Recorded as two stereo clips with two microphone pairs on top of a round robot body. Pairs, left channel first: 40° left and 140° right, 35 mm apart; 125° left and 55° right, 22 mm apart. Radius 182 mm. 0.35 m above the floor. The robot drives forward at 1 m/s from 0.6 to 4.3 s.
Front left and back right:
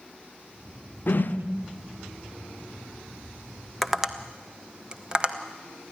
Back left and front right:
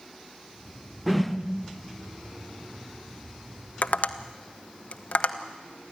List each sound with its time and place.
1.1 s a whoosh: 35° left, 1.2 m; by 1.4 s 50° left, 1.1 m
3.8 s tapping: 130° left, 0.7 m; by 5.4 s 150° left, 1.1 m